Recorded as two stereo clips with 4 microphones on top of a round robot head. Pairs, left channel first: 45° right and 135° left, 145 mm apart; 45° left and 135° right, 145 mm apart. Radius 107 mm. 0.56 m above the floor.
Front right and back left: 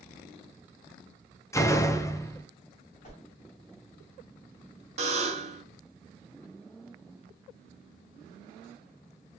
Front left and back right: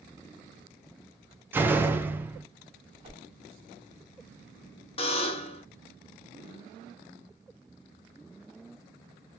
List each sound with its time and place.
1.5 s a door slam: 80° right, 0.5 m
3.0 s a whoosh: 80° right, 1.2 m
5.0 s a buzzer: 95° left, 0.6 m